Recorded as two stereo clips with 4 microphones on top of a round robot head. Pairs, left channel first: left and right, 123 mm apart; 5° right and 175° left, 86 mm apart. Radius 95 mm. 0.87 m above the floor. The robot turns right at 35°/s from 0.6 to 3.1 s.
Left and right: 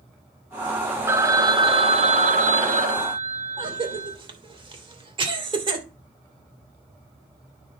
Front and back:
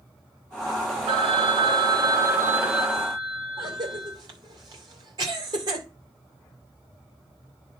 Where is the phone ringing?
160° right, 1.0 m; by 4.2 s 90° right, 1.0 m.